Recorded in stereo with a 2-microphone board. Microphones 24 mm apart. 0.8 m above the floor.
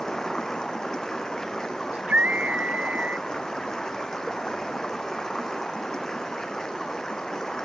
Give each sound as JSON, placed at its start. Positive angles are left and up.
{"t": 0.0, "sound": "running water", "side_deg": 25}
{"t": 1.9, "sound": "a scream", "side_deg": -70}